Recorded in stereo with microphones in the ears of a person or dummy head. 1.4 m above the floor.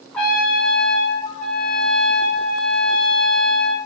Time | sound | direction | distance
0.1 | a trumpet | 5° left (ahead or behind) | 0.5 m